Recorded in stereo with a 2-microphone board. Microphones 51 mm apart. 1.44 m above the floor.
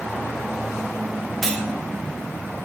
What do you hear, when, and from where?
1.4 s cutlery clinking: 5° left (ahead or behind), 0.5 m